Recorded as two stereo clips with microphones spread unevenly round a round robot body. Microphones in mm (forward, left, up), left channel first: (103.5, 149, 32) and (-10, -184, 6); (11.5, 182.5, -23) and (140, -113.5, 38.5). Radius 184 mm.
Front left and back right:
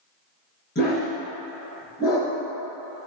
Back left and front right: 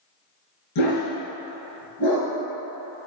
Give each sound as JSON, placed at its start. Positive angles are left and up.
{"t": 0.8, "sound": "a dog barking", "azimuth_deg": 140, "distance_m": 2.0}